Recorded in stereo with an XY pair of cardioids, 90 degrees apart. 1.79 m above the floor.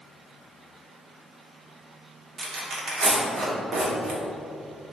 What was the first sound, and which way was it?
Tearing paper, 60° right.